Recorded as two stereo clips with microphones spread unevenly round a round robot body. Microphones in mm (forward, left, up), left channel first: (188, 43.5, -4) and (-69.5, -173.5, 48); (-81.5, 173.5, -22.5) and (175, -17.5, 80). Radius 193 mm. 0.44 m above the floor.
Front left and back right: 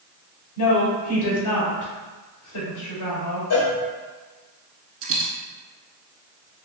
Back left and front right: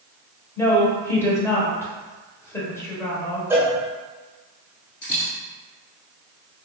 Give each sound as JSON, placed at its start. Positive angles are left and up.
{"t": 0.6, "sound": "a woman speaking", "azimuth_deg": 75, "distance_m": 1.5}
{"t": 3.5, "sound": "a cowbell", "azimuth_deg": 60, "distance_m": 1.0}
{"t": 5.0, "sound": "a dropped coin", "azimuth_deg": -150, "distance_m": 0.8}